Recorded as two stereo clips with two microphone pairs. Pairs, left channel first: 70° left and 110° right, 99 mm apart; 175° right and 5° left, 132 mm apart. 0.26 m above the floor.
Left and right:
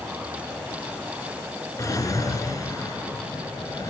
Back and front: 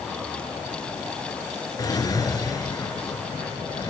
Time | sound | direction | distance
1.8 | a drawer | 125° left | 1.8 m